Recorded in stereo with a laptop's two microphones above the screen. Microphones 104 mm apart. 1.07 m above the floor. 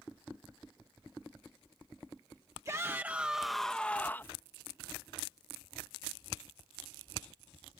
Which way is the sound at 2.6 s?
30° right (ahead or behind).